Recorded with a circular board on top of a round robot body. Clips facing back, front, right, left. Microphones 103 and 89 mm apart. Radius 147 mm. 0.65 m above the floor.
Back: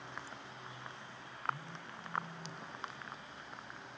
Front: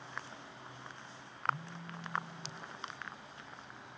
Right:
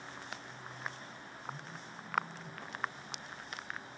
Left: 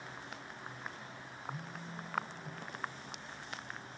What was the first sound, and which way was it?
A phone buzzing, 25° left.